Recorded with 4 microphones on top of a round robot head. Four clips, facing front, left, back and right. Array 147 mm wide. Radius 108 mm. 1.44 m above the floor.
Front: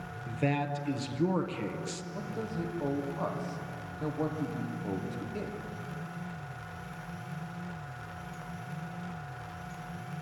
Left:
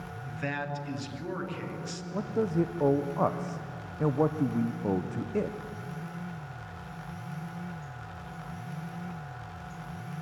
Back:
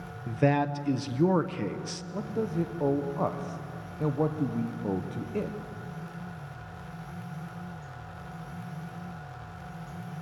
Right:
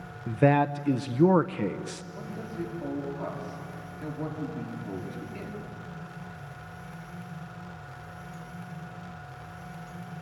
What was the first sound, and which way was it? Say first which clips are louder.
A man speaking: right 13 dB, back 6 dB; 105° right.